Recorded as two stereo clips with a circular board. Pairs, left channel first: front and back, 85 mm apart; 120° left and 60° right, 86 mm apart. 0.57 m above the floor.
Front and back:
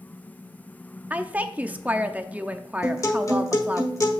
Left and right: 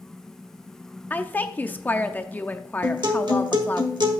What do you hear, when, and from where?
1.1 s a woman speaking: 145° left, 0.6 m
2.8 s a guitar: 45° right, 1.2 m